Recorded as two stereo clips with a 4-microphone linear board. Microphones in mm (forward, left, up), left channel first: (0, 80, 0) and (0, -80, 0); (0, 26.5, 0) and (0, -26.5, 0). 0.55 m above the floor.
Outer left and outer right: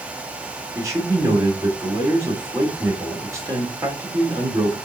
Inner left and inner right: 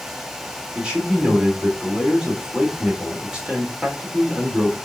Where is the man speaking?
20° right (ahead or behind), 1.7 m.